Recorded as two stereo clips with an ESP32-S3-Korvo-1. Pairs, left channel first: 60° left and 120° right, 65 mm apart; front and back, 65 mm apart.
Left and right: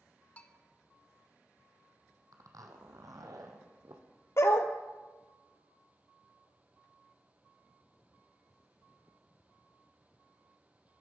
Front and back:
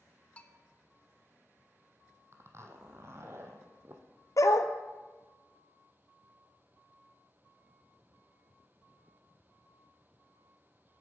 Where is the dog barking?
20° left, 0.7 m.